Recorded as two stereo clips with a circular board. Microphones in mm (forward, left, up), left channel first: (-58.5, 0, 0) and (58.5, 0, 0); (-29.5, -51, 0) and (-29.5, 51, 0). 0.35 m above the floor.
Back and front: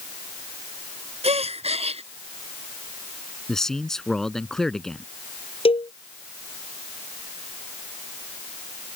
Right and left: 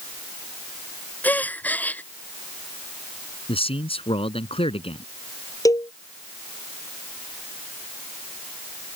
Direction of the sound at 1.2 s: 20° right.